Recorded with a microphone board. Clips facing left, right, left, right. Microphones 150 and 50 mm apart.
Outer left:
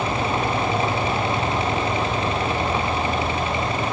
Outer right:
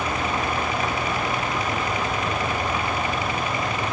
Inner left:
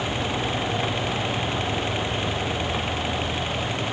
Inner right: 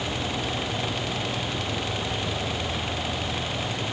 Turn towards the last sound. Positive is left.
No sound to turn to.